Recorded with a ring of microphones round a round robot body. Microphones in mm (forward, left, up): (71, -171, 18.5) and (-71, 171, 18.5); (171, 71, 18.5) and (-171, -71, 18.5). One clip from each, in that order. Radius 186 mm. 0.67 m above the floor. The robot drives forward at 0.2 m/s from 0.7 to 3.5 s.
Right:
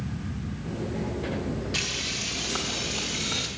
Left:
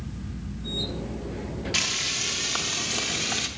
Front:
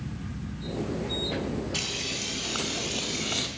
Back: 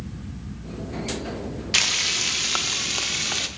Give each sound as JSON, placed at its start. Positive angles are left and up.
{"t": 1.7, "sound": "frying", "azimuth_deg": -170, "distance_m": 0.6}